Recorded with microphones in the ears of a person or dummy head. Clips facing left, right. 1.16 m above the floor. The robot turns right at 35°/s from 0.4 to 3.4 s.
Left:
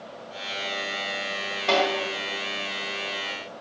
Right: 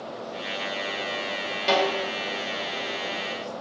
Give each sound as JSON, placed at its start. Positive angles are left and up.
{"t": 1.7, "sound": "a snare drum", "side_deg": -55, "distance_m": 1.0}